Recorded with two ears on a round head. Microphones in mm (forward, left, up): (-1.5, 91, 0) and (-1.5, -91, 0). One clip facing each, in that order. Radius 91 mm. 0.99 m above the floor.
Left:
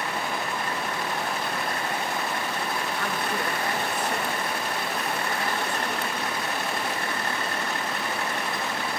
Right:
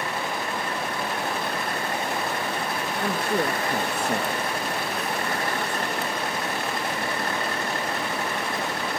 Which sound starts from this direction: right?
A woman speaking, at 3.0 s.